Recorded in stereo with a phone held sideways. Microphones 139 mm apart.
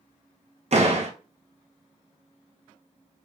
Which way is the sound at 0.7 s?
55° right (ahead or behind).